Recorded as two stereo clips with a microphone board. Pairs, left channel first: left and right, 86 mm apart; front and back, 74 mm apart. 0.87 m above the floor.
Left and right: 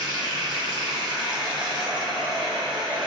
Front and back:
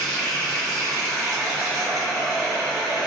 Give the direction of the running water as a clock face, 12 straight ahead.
3 o'clock.